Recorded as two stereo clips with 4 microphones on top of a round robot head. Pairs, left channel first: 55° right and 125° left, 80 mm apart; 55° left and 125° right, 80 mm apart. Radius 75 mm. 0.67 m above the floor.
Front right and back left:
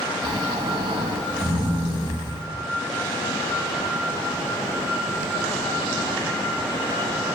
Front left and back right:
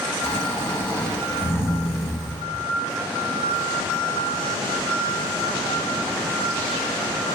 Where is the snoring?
120° left, 4.5 m.